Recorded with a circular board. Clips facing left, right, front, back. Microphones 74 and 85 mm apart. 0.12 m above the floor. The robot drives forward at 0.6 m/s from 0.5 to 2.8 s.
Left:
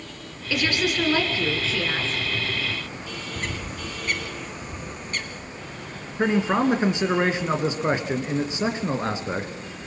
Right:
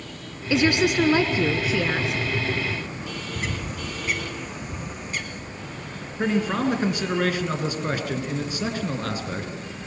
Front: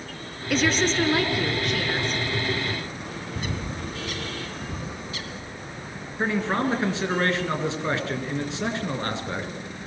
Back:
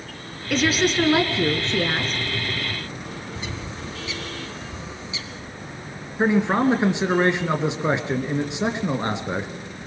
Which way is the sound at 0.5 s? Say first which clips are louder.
Right 5 dB, back 2 dB; 85° right.